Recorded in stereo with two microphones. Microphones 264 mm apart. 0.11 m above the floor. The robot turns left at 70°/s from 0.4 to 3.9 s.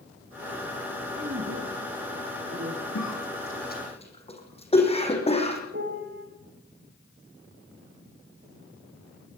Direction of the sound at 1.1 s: 30° right.